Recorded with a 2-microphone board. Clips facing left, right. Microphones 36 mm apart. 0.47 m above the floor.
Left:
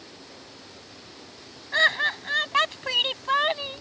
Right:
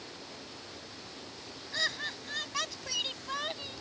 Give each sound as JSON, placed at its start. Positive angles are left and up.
{"t": 1.7, "sound": "laughter", "side_deg": 45}